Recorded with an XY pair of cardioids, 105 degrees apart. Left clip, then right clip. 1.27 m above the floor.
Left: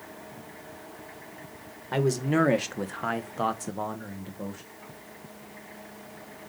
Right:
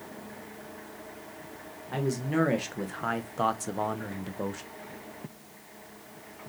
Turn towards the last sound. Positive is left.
turn(degrees=-45)